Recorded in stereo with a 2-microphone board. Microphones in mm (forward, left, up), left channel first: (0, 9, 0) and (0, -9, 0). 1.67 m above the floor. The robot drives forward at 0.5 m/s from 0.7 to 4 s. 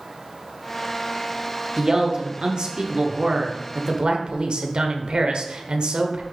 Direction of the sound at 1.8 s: 45° right (ahead or behind).